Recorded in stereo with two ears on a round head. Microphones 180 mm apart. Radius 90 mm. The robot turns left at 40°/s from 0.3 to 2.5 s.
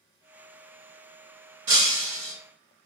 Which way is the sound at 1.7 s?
65° right (ahead or behind).